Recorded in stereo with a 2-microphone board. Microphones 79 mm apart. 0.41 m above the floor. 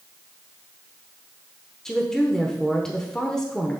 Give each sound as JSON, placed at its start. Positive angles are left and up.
{"t": 1.9, "sound": "a woman speaking", "side_deg": 5, "distance_m": 0.9}